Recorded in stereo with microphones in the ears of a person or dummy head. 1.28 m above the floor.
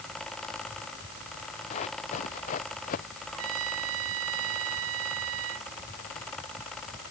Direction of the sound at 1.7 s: 35° left (ahead or behind).